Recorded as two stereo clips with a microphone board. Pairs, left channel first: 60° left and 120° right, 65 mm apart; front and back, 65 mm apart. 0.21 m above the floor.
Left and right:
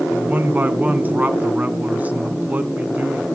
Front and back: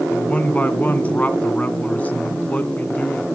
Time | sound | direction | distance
0.1 | a man speaking | 60° right | 1.8 m